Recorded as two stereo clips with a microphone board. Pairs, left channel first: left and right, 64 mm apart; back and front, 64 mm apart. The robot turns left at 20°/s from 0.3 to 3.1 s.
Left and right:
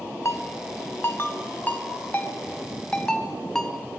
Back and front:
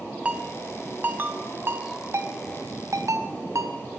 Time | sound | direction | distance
0.2 | a ringtone | 65° left | 1.3 m